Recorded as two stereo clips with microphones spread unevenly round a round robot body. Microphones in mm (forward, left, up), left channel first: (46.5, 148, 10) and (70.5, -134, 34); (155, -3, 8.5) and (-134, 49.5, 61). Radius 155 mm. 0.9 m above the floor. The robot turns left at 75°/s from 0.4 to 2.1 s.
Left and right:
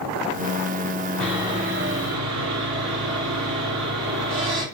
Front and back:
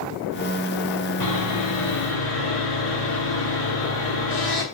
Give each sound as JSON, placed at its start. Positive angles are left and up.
{"t": 1.2, "sound": "sawing", "azimuth_deg": 5, "distance_m": 6.0}